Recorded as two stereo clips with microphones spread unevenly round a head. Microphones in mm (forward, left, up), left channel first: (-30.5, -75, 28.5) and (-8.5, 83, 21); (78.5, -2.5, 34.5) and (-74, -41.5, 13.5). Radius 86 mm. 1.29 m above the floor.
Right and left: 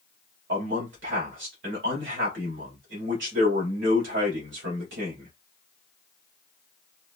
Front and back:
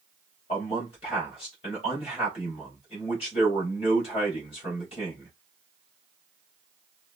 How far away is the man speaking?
About 3 m.